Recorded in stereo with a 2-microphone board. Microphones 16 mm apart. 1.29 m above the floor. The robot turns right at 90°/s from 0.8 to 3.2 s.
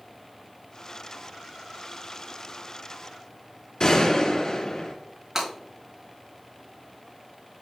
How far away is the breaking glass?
About 4 m.